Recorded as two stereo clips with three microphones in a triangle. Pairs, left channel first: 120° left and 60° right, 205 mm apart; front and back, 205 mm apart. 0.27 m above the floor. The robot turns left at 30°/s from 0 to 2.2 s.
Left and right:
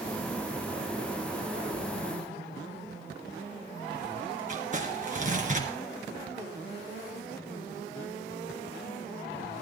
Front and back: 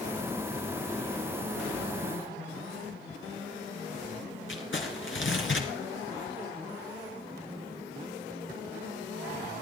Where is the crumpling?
10° right, 3 m.